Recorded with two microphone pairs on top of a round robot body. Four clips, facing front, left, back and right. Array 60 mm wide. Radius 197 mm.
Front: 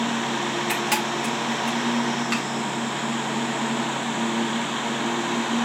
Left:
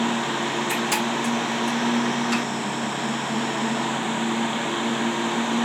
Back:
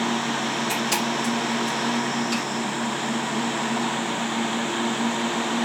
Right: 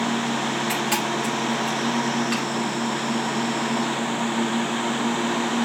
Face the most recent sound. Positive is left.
turn(degrees=-10)